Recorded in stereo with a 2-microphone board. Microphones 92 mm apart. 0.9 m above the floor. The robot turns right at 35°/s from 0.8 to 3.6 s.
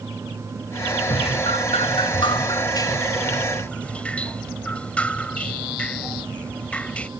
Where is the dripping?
80° left; by 7.1 s 165° left.